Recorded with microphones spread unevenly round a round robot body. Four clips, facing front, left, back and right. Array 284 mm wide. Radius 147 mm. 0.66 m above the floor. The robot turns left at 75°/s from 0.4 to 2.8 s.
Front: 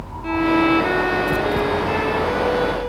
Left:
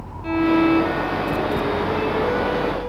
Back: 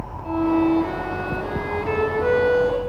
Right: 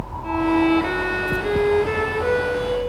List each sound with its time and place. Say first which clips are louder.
0.2 s a violin: left 1 dB, front 2 dB; 10° left, 4 m; by 2.8 s 170° right, 4 m